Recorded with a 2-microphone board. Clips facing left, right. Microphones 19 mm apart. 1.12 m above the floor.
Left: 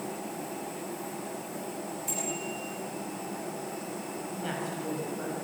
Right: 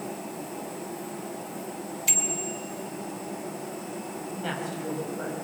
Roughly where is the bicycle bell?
Right.